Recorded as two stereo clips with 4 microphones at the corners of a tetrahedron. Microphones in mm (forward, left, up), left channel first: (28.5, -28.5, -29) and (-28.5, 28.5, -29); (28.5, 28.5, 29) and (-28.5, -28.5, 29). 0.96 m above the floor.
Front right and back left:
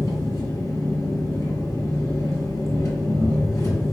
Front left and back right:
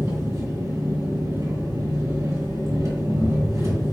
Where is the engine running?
90° right, 2 m.